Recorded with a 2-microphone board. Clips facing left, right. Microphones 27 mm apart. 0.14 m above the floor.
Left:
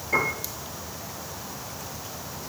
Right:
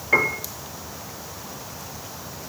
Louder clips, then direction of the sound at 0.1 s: Right 5 dB; 35° right (ahead or behind).